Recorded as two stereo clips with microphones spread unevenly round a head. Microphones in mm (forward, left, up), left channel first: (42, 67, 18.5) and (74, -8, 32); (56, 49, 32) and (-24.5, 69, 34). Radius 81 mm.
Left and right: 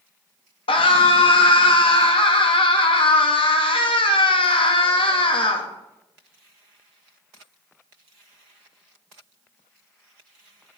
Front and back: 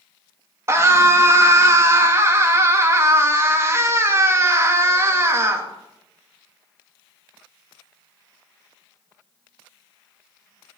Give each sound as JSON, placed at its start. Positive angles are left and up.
{"t": 0.7, "sound": "a scream", "azimuth_deg": 110, "distance_m": 3.5}